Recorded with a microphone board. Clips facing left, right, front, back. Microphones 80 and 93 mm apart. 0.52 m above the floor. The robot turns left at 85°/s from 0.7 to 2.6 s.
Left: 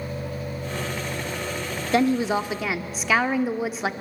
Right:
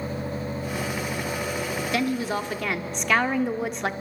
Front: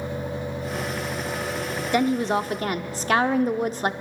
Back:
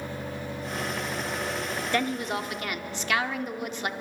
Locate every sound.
1.9 s a woman speaking: 60° left, 0.8 m; by 3.9 s 5° left, 0.8 m